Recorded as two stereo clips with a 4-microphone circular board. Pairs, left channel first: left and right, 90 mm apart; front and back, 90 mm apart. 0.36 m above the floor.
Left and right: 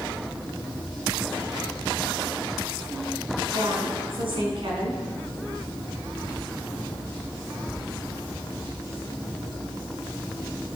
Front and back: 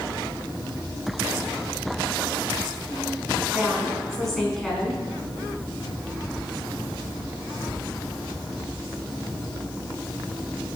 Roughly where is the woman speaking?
Right.